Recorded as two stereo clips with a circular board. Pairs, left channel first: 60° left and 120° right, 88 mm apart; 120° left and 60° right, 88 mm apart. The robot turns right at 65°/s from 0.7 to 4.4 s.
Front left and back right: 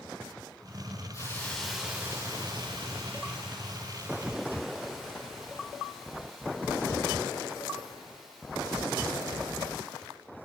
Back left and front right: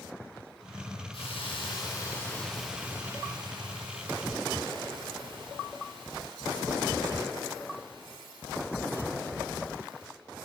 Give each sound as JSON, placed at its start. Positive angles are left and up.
{"t": 1.1, "sound": "a hiss", "azimuth_deg": 110, "distance_m": 6.0}